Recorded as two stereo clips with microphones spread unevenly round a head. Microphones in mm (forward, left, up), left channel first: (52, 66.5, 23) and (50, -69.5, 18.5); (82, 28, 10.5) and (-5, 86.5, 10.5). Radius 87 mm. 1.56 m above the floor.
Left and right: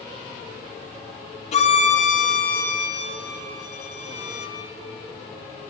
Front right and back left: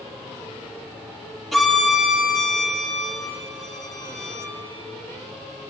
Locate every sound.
1.5 s a violin: 50° left, 4 m